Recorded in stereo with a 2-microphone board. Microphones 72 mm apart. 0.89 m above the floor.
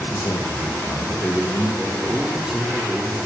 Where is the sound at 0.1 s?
40° left (ahead or behind), 4.5 m.